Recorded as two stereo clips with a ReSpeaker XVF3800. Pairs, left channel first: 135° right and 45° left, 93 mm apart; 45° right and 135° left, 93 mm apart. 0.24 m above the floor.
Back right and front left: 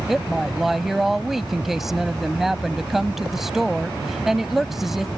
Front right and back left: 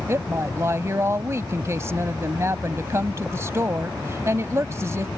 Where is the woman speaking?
130° left.